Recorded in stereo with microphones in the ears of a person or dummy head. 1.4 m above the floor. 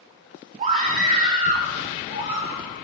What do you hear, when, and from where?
0.6 s a scream: 40° right (ahead or behind), 2.5 m; by 2.6 s 35° right (ahead or behind), 6 m